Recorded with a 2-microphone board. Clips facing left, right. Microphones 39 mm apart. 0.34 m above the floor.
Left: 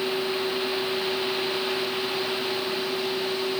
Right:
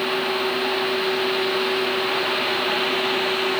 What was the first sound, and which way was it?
Only background noise.